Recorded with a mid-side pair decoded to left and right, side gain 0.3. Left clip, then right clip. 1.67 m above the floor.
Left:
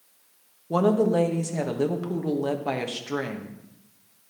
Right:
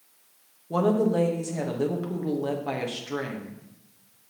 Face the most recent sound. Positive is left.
turn(degrees=45)